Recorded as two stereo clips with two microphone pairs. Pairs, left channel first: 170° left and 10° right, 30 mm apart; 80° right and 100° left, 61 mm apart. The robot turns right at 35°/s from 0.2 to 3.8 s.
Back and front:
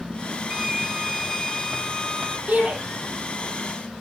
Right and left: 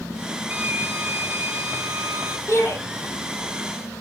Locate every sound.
0.5 s a violin: 60° left, 1.8 m; by 2.4 s 125° left, 1.8 m
2.5 s a shout: 45° right, 6.5 m; by 2.8 s 35° right, 6.5 m